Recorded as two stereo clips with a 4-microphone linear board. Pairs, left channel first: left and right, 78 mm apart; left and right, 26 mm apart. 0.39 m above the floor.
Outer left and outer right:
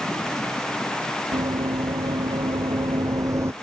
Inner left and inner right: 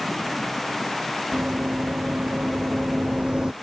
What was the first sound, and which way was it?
Running footsteps, 80° right.